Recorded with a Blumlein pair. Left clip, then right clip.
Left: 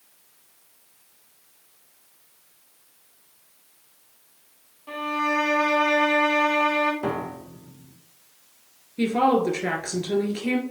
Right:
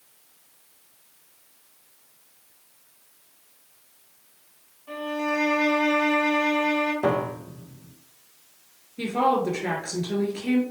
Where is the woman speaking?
20° left, 1.7 m.